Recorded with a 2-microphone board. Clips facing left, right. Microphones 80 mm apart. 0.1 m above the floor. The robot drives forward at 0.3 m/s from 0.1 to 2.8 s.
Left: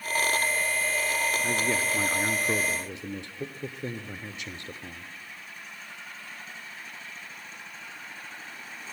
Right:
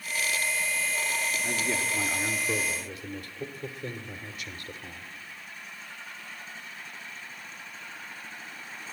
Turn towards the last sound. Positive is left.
turn(degrees=25)  # may be behind; listen again after turning